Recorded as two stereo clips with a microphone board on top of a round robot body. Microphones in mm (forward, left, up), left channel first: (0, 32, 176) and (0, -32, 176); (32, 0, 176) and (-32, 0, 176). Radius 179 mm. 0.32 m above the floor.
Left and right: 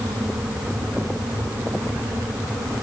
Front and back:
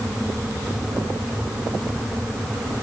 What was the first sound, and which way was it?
Only background noise.